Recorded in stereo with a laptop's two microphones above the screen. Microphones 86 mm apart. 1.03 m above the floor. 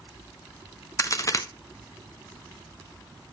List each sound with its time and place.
1.0 s a crack: 40° left (ahead or behind), 0.9 m